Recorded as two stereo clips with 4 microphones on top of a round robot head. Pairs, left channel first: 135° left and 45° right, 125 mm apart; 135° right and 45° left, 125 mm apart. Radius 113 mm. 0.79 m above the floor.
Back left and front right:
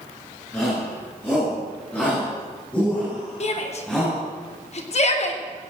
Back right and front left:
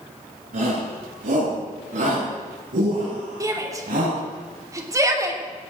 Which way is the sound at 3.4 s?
105° left.